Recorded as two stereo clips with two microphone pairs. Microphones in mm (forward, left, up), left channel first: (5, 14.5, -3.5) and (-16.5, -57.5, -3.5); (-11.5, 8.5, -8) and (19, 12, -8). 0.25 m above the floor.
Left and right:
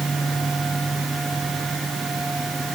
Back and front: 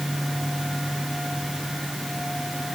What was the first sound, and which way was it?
Only background noise.